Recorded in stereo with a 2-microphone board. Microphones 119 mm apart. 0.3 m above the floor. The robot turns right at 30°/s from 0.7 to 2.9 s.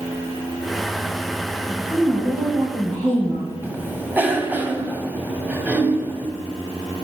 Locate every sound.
1.7 s a woman speaking: 165° left, 4.5 m; by 3.5 s 160° right, 4.5 m
3.6 s a cough: 15° right (ahead or behind), 1.6 m